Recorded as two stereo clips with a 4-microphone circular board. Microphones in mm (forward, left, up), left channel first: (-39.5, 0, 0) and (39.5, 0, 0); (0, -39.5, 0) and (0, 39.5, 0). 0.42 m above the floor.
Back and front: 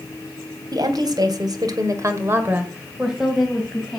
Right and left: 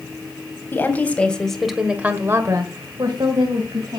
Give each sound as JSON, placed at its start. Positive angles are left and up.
{"t": 0.7, "sound": "a woman speaking", "azimuth_deg": -25, "distance_m": 3.0}